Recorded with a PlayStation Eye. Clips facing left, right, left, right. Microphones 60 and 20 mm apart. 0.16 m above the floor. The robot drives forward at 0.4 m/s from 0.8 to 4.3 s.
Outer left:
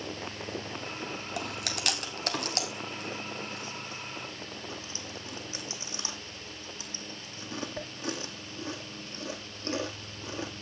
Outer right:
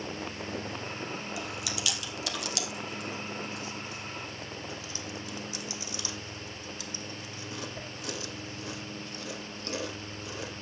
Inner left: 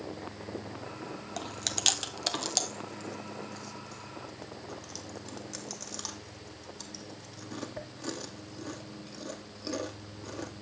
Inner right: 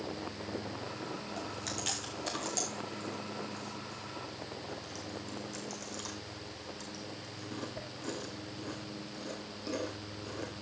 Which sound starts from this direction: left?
Chewing, at 1.4 s.